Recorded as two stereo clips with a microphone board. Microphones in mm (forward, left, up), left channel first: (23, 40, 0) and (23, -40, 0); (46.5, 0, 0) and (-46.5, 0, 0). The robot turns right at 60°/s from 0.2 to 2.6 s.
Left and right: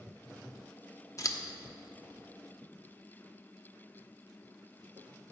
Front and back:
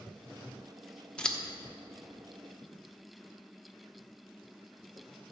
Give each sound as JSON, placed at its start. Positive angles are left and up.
{"t": 1.2, "sound": "scissors", "azimuth_deg": 75, "distance_m": 1.0}